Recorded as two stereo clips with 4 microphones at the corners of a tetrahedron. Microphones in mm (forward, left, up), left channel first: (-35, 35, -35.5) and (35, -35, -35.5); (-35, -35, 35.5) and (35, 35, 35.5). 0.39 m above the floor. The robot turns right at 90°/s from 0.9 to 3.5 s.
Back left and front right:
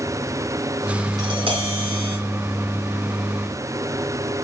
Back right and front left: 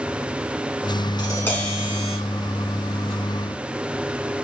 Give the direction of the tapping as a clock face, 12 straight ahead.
3 o'clock.